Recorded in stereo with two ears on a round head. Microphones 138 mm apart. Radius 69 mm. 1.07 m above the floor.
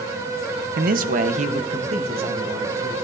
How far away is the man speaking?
About 0.6 m.